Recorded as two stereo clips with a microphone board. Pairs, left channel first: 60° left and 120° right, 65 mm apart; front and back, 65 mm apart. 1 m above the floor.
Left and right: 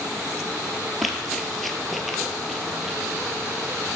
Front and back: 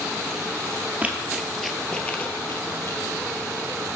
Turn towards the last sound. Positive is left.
turn(degrees=-35)